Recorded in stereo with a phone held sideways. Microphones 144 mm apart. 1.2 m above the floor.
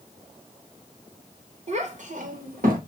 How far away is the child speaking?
About 1.2 m.